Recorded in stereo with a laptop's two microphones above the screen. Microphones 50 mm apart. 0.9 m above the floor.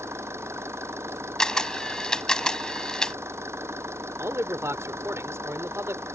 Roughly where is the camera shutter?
Centre.